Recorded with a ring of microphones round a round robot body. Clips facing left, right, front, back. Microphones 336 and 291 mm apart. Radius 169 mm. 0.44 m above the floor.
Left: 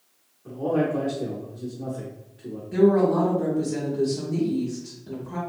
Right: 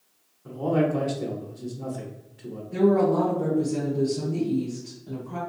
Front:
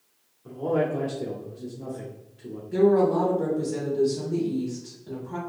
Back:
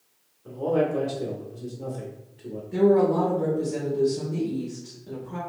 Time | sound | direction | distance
0.5 | a man speaking | 70° right | 0.8 m
2.7 | a woman speaking | 70° left | 1.5 m